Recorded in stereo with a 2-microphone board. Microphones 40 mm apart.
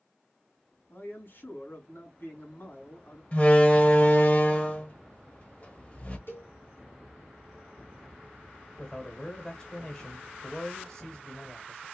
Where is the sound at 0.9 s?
65° left (ahead or behind), 2.5 m.